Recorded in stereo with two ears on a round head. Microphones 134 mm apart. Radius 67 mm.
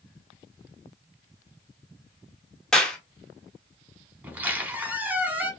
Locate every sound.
2.7 s a clap: 5° left (ahead or behind), 0.8 m
4.2 s a squeak: 10° right (ahead or behind), 0.9 m